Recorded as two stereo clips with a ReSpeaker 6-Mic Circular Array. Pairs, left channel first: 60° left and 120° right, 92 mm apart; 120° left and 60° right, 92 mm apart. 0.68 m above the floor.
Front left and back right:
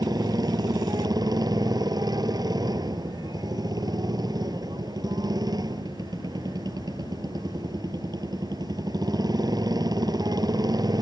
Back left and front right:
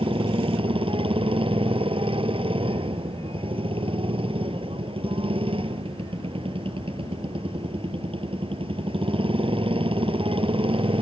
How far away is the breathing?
No breathing in this recording.